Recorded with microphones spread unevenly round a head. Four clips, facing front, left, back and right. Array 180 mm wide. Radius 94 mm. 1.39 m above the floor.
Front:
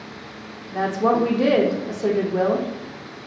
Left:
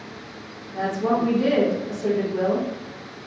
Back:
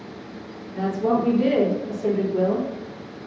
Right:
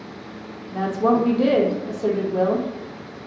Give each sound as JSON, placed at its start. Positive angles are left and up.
{"t": 0.7, "sound": "a woman speaking", "azimuth_deg": -30, "distance_m": 0.9}